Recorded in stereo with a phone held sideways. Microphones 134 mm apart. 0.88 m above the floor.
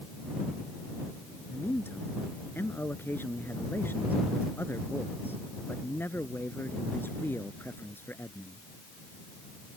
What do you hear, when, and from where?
1.5 s a man speaking: 15° left (ahead or behind)